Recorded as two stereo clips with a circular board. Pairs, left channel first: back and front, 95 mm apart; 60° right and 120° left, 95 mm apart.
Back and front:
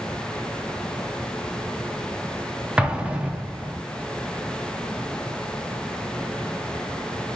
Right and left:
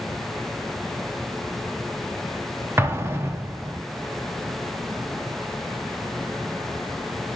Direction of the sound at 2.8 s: 75° left.